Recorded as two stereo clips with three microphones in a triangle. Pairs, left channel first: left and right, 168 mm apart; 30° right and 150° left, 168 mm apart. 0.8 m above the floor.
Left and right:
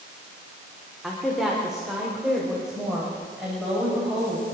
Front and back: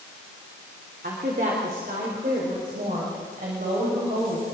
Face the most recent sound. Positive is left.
turn(degrees=-175)